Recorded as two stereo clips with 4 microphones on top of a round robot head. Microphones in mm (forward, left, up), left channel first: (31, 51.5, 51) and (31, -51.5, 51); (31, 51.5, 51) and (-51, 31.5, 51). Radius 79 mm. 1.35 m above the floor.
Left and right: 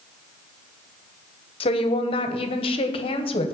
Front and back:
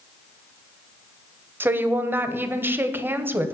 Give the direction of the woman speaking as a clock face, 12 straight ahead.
8 o'clock.